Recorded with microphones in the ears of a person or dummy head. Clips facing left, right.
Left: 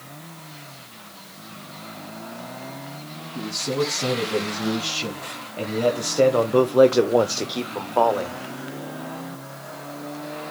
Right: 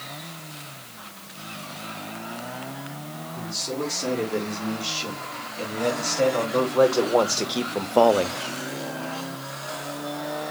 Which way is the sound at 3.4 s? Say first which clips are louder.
Left 6 dB; 80° left.